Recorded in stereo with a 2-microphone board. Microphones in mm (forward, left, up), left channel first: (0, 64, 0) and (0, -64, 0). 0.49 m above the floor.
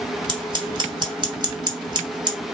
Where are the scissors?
35° right (ahead or behind), 1.0 m.